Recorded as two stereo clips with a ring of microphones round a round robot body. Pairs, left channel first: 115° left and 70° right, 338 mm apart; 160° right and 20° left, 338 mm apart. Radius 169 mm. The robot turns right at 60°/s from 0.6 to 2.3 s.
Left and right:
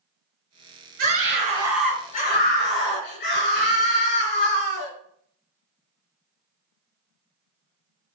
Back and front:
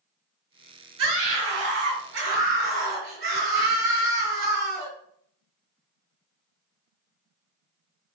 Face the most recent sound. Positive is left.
turn(degrees=55)